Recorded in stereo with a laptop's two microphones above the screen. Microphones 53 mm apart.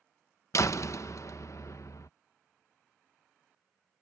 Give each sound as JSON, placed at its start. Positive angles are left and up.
{"t": 0.5, "sound": "a door slam", "side_deg": 70}